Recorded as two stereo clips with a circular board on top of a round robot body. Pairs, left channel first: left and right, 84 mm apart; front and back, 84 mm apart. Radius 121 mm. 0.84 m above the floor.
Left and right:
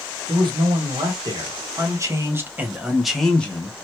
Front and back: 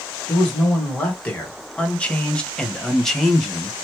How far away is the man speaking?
About 1.7 m.